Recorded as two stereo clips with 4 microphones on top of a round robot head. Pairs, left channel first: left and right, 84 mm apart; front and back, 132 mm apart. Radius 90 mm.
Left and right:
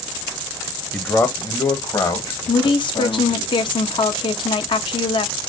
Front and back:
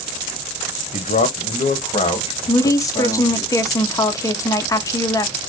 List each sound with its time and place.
0.9 s a man speaking: 25° left, 0.9 m; by 3.5 s 60° left, 2.5 m
2.5 s a woman speaking: 70° left, 1.0 m